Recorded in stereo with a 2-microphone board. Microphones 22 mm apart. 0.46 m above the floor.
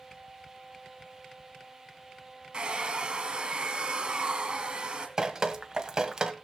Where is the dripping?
30° right (ahead or behind), 1.4 m.